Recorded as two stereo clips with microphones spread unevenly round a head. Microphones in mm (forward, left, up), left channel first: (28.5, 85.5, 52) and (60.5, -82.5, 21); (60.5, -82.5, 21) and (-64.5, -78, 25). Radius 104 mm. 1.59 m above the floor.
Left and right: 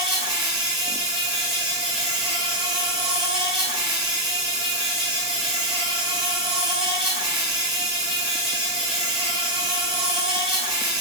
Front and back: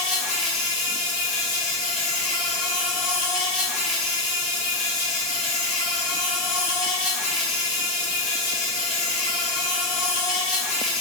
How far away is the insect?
About 1.6 m.